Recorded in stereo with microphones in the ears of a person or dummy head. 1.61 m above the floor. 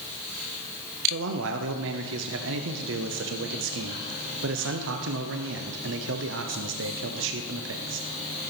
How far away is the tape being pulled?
I don't hear tape being pulled.